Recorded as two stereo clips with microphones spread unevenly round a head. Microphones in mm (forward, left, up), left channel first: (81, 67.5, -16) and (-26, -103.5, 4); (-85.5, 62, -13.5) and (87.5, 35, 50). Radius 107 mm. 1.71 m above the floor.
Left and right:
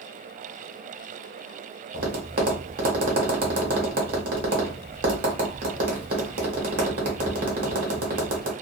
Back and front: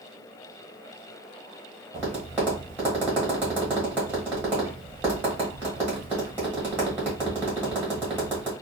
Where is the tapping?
80° right, 1.2 m.